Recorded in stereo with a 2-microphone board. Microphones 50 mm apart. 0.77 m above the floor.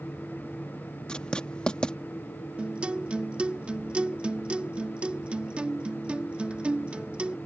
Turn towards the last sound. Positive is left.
turn(degrees=-25)  # may be behind; listen again after turning